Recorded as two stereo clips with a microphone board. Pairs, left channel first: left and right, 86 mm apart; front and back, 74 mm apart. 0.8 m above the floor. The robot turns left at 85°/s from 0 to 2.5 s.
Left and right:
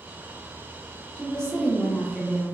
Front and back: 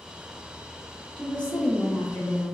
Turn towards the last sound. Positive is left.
turn(degrees=-65)